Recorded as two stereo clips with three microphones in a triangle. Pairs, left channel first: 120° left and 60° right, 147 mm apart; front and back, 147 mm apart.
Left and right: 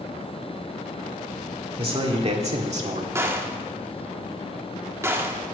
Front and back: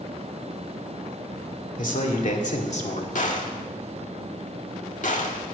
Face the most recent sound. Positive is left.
turn(degrees=10)